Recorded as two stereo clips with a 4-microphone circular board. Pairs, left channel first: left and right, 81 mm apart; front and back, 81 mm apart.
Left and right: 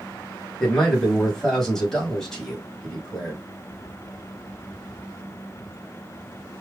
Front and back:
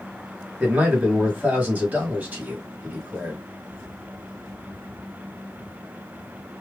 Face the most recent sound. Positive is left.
turn(degrees=160)